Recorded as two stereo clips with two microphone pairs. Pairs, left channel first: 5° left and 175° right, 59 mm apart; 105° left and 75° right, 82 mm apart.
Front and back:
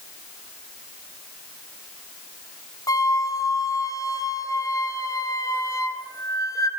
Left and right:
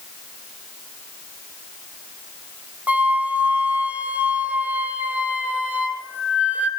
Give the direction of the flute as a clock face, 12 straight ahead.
12 o'clock.